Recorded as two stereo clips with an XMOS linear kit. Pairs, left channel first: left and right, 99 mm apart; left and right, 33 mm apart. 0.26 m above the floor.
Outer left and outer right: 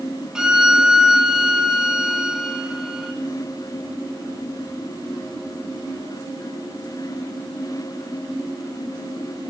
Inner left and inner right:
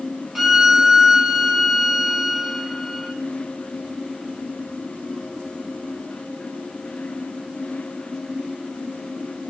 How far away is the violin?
About 2 m.